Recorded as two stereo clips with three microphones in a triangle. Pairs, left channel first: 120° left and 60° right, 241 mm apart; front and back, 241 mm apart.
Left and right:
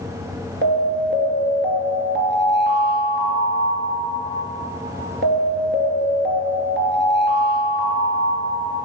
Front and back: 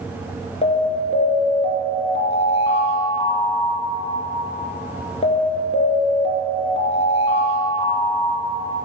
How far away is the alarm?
About 1.9 m.